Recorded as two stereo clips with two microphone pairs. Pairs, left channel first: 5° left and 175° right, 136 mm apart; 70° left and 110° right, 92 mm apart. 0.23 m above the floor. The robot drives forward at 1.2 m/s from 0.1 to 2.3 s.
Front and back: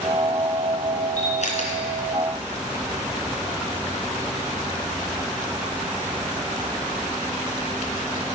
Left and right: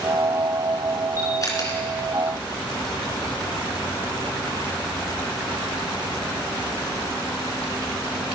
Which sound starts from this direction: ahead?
A camera shutter, at 1.2 s.